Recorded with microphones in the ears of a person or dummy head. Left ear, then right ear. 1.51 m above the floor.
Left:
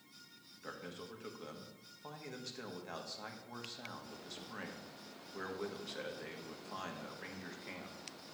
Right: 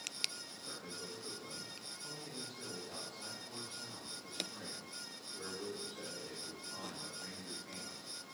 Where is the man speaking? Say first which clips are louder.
Left 2 dB; 70° left (ahead or behind), 1.3 m.